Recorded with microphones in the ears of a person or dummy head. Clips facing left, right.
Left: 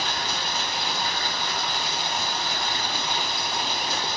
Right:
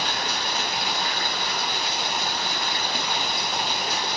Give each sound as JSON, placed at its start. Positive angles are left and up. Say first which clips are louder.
{"t": 0.0, "sound": "running water", "louder": "right 1 dB", "side_deg": -45, "distance_m": 0.7}